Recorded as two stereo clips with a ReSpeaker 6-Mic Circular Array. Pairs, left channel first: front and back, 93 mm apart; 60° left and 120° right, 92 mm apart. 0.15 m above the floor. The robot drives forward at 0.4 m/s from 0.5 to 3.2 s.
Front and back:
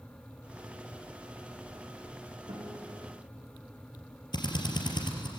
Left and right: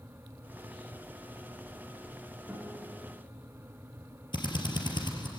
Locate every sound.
2.5 s a guitar: 160° left, 9.5 m
4.3 s a drill: 30° left, 3.5 m